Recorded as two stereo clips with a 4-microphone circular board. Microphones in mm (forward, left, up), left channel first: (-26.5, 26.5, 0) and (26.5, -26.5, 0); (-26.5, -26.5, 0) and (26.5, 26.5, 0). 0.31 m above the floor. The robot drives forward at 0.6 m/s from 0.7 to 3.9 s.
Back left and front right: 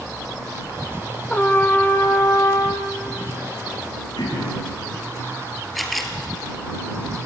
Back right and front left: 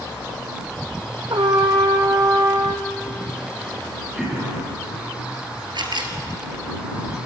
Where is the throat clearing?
125° left, 10 m.